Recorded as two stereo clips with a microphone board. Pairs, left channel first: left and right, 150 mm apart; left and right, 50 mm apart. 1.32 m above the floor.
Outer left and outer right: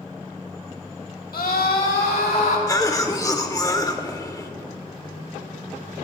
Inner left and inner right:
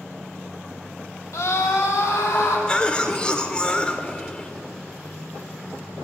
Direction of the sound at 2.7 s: 25° left (ahead or behind).